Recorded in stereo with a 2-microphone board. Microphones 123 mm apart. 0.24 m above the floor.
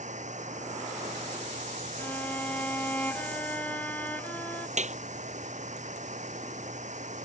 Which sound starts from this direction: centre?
A violin, at 2.0 s.